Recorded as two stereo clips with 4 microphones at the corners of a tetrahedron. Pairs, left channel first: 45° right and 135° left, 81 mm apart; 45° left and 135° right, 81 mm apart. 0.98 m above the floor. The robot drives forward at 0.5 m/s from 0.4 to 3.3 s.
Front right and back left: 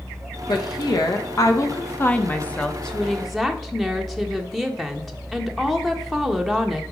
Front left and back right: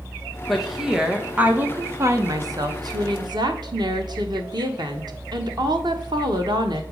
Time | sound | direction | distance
0.5 | a woman speaking | 45° right | 1.1 m